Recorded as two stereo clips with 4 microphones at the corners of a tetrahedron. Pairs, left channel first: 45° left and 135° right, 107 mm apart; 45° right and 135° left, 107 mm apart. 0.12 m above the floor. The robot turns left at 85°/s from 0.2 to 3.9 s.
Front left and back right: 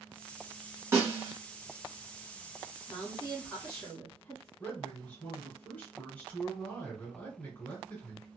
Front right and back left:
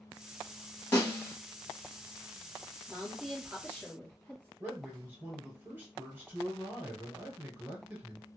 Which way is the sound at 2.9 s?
95° left.